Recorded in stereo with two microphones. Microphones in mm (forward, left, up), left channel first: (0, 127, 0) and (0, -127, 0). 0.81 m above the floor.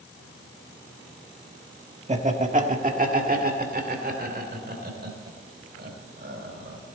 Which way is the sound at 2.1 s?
30° right (ahead or behind).